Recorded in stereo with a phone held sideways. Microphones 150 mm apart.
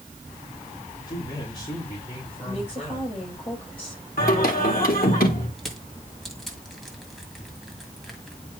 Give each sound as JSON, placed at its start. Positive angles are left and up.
{"t": 1.1, "sound": "a man speaking", "side_deg": 25, "distance_m": 3.0}
{"t": 2.4, "sound": "a woman speaking", "side_deg": 35, "distance_m": 7.0}
{"t": 4.2, "sound": "singing", "side_deg": 70, "distance_m": 2.0}
{"t": 5.6, "sound": "crushing", "side_deg": 0, "distance_m": 1.8}